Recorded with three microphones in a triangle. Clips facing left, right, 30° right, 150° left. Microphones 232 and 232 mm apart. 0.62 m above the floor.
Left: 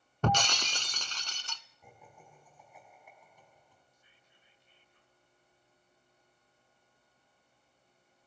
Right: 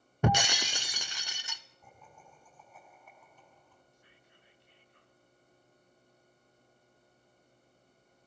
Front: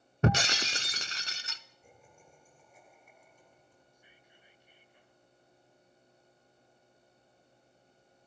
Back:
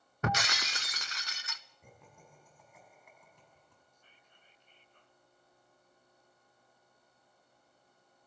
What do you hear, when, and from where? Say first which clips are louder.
0.2 s breaking glass: right 2 dB, front 7 dB; 20° right, 0.6 m
1.8 s laughter: left 2 dB, back 2 dB; 165° left, 6.5 m
3.9 s whispering: right 6 dB, front 4 dB; 110° right, 2.5 m